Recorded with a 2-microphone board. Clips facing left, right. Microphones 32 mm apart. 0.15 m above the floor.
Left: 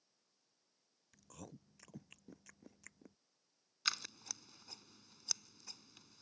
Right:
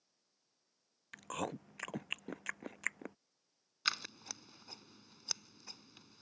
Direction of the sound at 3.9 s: 15° right (ahead or behind).